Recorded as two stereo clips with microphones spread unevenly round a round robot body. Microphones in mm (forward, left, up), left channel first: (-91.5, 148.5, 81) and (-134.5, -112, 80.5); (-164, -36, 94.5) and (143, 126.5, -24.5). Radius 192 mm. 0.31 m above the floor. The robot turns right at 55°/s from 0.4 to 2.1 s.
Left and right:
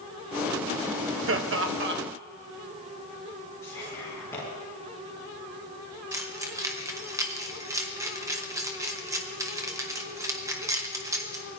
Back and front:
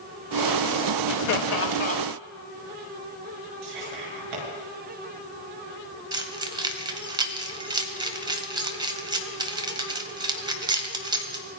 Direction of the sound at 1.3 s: 105° right.